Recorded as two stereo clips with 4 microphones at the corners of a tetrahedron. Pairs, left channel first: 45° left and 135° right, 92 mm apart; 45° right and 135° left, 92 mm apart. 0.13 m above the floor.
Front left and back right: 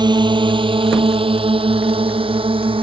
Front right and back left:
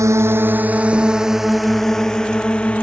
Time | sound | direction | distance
0.0 | a drone | 170° right | ?